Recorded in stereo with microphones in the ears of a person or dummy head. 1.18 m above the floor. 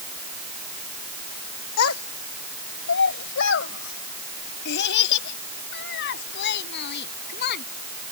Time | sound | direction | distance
1.8 | a child speaking | 85° left | ?